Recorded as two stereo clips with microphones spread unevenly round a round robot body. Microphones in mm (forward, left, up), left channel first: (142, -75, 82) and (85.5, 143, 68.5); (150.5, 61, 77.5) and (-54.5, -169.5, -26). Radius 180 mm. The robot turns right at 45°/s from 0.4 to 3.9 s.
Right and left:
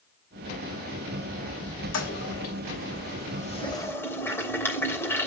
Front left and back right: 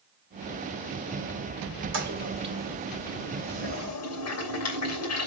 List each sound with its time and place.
1.9 s a toilet flushing: 85° right, 3 m; by 5.3 s 5° left, 3 m